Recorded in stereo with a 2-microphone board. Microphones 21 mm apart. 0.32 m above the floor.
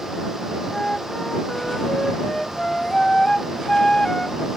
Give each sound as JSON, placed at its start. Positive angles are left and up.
{"t": 0.7, "sound": "a flute", "side_deg": 30}